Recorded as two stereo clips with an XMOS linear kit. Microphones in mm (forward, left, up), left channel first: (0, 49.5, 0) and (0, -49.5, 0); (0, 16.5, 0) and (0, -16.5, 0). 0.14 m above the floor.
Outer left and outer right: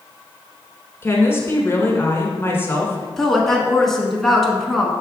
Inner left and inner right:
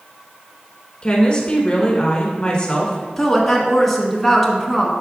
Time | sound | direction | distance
1.0 | a woman speaking | 25° left (ahead or behind) | 1.2 m
3.2 | a woman speaking | 5° left (ahead or behind) | 1.1 m